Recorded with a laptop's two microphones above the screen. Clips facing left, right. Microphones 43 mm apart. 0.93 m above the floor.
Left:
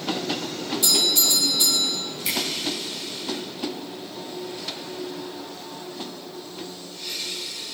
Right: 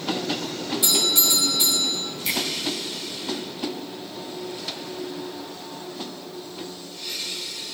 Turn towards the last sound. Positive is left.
turn(degrees=10)  # may be behind; listen again after turning